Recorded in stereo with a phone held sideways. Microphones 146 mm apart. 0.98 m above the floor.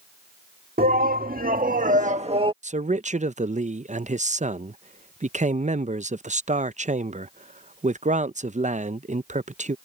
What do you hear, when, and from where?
0.8 s a shout: 80° right; by 2.5 s 35° right (ahead or behind)
2.6 s a man speaking: 55° right (ahead or behind)